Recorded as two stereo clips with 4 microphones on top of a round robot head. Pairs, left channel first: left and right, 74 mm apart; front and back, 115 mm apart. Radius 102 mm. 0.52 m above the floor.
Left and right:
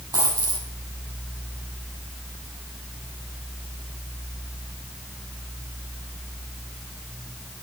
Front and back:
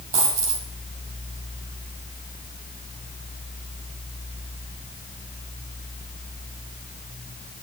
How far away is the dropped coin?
About 7 m.